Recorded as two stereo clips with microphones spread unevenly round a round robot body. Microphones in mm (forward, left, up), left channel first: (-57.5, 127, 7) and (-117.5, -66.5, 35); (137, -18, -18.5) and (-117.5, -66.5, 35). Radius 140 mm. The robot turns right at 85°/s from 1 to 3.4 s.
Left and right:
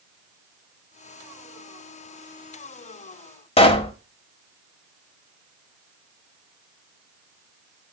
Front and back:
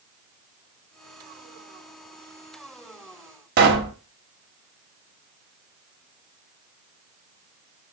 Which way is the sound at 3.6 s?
140° left.